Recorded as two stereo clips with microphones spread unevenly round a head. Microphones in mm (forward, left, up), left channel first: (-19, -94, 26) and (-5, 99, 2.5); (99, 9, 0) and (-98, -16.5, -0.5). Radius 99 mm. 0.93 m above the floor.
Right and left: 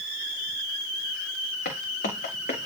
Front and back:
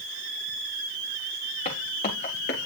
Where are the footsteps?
50° right, 4.5 m; by 2.7 s 40° right, 4 m.